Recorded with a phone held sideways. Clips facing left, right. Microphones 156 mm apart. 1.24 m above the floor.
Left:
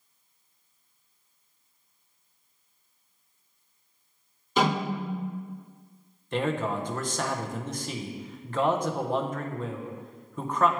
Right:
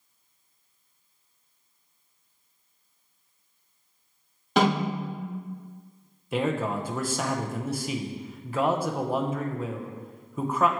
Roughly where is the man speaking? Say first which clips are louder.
Right 1 dB; centre.